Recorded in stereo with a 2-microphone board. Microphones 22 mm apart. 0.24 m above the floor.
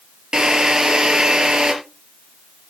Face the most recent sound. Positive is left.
turn(degrees=-45)  # may be behind; listen again after turning